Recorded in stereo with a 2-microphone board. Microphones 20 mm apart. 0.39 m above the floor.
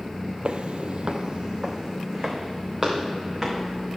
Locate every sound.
0.5 s footsteps: 55° right (ahead or behind), 0.6 m; by 4.0 s 10° right (ahead or behind), 3.5 m